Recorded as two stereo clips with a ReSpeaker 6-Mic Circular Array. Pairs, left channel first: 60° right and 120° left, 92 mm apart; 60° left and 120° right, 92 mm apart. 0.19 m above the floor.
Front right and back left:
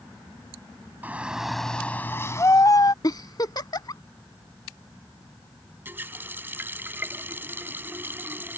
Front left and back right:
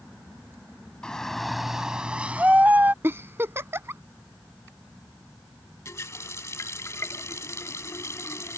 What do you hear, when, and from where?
1.0 s a shout: 125° left; by 2.9 s 60° right
3.0 s a giggle: 65° right
5.8 s a running tap: 75° left